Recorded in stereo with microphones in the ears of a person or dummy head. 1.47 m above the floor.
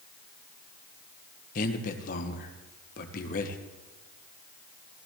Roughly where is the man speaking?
Left.